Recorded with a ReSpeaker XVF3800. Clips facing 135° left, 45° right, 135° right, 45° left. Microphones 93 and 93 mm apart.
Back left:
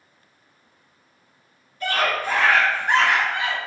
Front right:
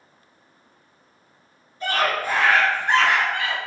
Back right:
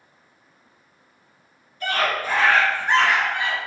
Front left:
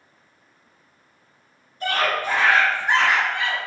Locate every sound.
1.8 s a scream: 20° left, 1.6 m; by 3.6 s 165° left, 1.4 m